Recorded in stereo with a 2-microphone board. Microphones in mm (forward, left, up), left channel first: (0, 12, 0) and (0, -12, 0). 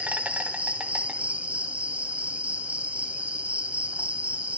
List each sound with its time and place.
0.0 s an insect: 70° right (ahead or behind), 1.6 m